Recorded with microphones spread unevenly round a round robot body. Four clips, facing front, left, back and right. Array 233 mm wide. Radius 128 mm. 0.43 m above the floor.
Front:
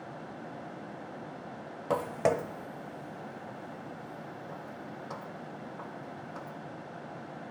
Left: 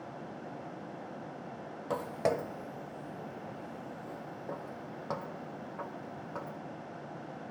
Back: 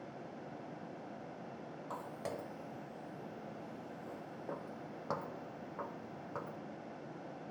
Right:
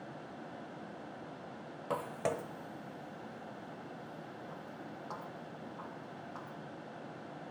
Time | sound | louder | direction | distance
1.9 | footsteps | left 4 dB, front 16 dB | 10° left | 0.7 m